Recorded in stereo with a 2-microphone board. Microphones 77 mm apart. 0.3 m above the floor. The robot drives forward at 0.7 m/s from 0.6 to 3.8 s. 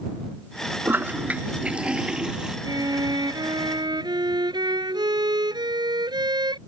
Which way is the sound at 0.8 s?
30° right (ahead or behind).